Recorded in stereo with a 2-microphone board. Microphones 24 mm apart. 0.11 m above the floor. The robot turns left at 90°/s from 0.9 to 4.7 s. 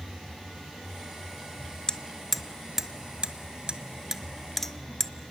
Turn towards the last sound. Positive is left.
turn(degrees=10)  # may be behind; listen again after turning